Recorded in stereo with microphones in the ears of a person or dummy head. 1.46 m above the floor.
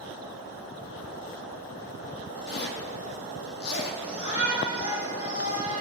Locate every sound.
2.5 s a zipper: 65° left (ahead or behind), 1.6 m
4.0 s a shout: 45° left (ahead or behind), 4.5 m